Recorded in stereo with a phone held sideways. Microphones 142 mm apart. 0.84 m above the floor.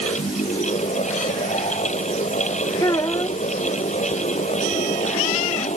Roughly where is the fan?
Left.